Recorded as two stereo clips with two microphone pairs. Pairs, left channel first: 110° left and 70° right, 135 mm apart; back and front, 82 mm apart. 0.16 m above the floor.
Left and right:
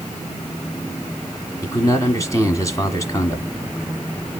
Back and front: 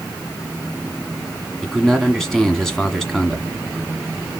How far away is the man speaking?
About 1.5 m.